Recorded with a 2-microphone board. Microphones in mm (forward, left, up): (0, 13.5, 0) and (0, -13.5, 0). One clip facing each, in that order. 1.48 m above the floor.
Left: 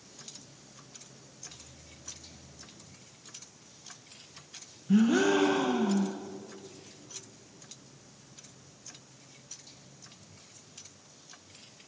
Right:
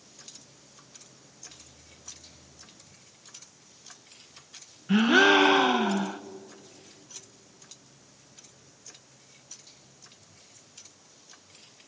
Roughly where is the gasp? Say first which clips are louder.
Right 5 dB; right.